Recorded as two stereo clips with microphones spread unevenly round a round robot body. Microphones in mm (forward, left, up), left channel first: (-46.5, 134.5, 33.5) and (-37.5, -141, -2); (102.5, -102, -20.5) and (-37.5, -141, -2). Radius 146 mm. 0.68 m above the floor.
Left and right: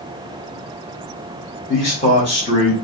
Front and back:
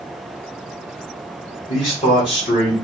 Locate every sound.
1.7 s a man speaking: 20° left, 1.5 m